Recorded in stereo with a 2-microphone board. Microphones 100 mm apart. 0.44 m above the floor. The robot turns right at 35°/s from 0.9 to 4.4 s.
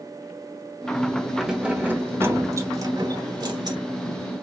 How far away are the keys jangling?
About 1.0 m.